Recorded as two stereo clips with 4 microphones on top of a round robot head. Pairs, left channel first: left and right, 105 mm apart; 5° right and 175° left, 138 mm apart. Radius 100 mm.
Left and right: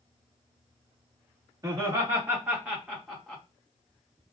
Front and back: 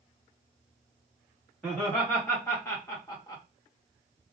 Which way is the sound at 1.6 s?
75° right.